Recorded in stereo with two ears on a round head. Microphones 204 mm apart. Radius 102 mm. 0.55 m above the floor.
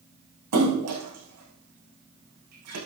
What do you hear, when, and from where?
0.5 s a splash: 90° right, 7 m